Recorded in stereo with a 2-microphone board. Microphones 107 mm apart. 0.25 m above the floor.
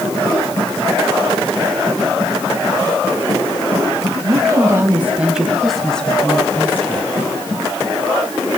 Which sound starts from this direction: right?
A woman speaking, at 4.2 s.